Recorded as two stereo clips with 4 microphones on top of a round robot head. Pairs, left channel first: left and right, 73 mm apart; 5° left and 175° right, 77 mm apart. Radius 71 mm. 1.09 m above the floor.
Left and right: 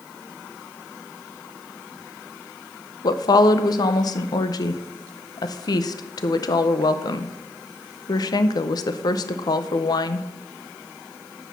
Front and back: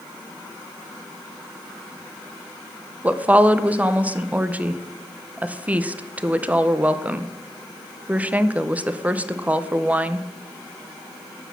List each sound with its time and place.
3.0 s a woman speaking: 115° left, 0.7 m